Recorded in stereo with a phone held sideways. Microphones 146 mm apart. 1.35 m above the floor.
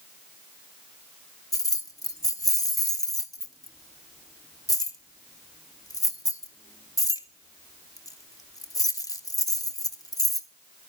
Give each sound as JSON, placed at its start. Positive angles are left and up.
{"t": 1.5, "sound": "keys jangling", "side_deg": 25, "distance_m": 0.9}